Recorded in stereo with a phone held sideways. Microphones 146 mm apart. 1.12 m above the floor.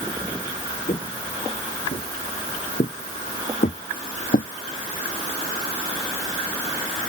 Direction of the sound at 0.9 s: 50° left (ahead or behind).